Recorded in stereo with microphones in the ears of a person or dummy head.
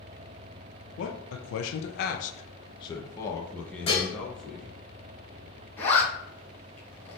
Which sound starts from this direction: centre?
A zipper, at 5.8 s.